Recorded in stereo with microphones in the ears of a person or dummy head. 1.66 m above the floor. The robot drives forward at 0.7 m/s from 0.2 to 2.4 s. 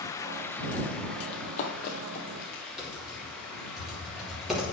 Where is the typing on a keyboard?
5° right (ahead or behind), 3 m.